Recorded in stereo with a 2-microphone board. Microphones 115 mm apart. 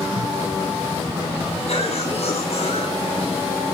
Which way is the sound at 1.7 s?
65° left (ahead or behind).